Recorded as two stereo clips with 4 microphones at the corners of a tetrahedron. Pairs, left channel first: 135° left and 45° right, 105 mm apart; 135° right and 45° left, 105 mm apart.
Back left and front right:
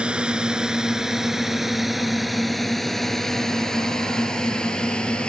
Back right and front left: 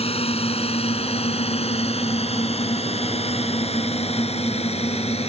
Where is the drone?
125° right; by 5.3 s 145° right.